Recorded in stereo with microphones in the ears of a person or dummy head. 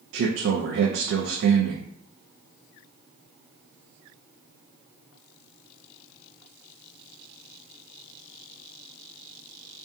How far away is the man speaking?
About 0.5 m.